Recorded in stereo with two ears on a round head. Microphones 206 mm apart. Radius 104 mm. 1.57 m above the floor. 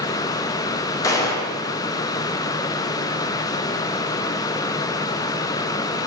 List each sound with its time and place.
1.0 s a gunshot: 15° left (ahead or behind), 0.5 m